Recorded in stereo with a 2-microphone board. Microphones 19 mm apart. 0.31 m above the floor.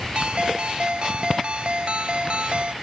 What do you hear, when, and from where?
0.1 s a ringtone: 60° right (ahead or behind)